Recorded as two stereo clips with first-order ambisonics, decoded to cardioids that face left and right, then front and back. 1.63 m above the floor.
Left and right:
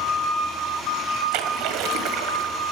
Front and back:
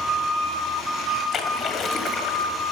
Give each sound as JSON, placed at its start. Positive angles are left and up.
{"t": 1.3, "sound": "a splash", "azimuth_deg": -65, "distance_m": 1.1}